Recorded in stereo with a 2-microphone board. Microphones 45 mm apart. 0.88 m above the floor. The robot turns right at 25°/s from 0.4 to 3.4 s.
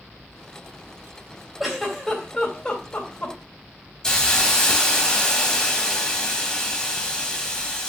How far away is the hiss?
About 2.5 m.